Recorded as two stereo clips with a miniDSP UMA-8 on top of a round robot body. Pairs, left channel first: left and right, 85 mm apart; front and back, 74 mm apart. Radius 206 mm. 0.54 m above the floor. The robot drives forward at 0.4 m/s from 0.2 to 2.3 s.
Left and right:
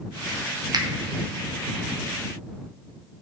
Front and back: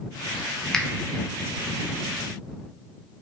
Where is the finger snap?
80° right, 0.6 m; by 0.9 s 85° right, 0.6 m.